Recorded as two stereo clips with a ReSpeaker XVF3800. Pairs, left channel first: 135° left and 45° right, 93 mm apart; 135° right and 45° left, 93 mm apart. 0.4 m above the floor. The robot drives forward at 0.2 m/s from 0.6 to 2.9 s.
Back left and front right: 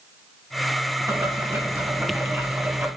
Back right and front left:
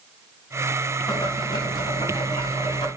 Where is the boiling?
95° right, 2 m; by 2.9 s 105° right, 2.5 m.